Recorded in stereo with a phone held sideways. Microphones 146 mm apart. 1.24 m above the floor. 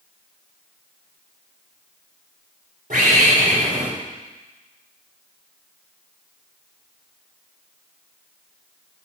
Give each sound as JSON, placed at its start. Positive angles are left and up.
{"t": 2.9, "sound": "a bird", "side_deg": -70, "distance_m": 3.5}